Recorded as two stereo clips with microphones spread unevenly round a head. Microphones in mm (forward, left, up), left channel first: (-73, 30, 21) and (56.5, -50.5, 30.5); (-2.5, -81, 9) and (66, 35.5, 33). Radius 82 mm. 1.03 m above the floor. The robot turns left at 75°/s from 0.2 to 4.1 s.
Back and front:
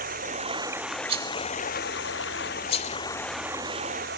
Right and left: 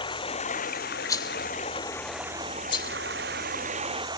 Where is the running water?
65° right; by 4.2 s straight ahead.